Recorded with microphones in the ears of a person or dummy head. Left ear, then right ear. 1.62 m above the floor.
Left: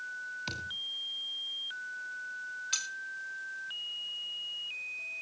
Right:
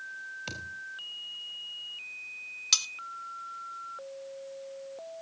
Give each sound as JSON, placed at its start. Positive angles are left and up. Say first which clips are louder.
{"t": 0.5, "sound": "a thud", "louder": "left 4 dB", "side_deg": -15, "distance_m": 2.5}
{"t": 2.7, "sound": "cutlery clinking", "louder": "right 9 dB", "side_deg": -60, "distance_m": 1.8}